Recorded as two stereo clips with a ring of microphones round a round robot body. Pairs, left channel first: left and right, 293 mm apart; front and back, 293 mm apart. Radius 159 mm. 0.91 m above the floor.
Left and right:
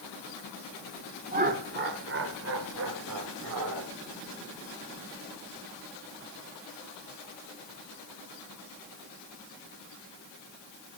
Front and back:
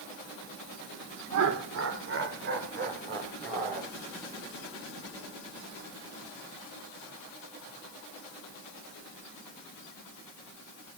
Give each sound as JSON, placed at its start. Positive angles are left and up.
{"t": 1.3, "sound": "laughter", "azimuth_deg": -150, "distance_m": 2.5}